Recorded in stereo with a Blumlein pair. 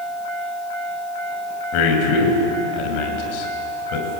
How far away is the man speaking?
About 6 m.